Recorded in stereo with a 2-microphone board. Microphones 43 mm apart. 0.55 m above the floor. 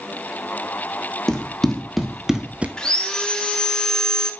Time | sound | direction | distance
1.3 | running footsteps | 15° left (ahead or behind) | 1.7 m
2.8 | sawing | 20° left (ahead or behind) | 1.0 m